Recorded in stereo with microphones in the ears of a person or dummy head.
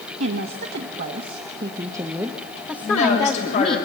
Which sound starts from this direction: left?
A woman speaking, at 2.8 s.